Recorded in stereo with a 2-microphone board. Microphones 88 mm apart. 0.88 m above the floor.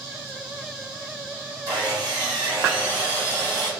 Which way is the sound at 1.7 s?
50° right (ahead or behind).